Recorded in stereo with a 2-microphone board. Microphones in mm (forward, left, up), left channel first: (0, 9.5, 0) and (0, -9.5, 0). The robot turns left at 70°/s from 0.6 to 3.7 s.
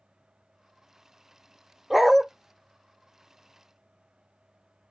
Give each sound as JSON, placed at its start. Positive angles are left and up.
{"t": 1.9, "sound": "a dog barking", "side_deg": -10, "distance_m": 1.6}